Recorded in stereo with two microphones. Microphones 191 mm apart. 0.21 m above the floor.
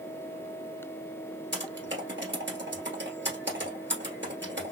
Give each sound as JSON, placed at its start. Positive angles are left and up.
{"t": 1.5, "sound": "typing on a keyboard", "side_deg": -75, "distance_m": 1.8}